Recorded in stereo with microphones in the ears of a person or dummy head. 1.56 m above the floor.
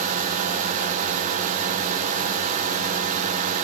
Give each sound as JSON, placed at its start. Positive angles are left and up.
{"t": 0.0, "sound": "a drone", "side_deg": -45}